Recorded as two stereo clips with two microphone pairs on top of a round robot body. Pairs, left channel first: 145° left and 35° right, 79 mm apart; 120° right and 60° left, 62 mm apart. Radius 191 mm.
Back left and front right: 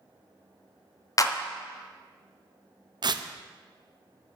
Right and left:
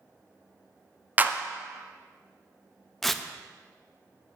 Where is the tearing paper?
35° right, 0.7 m.